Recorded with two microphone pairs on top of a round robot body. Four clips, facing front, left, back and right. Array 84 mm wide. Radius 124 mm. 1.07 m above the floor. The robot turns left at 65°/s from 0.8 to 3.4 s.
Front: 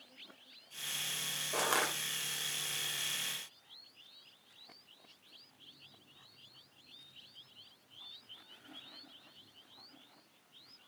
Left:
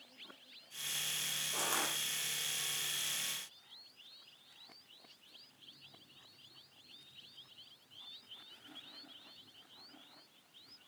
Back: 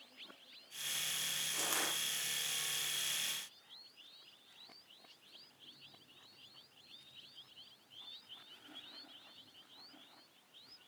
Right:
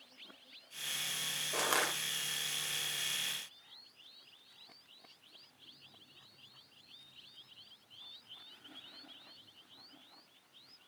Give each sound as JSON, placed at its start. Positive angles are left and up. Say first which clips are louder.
{"t": 1.5, "sound": "crushing", "louder": "right 5 dB, front 8 dB", "azimuth_deg": -30, "distance_m": 5.0}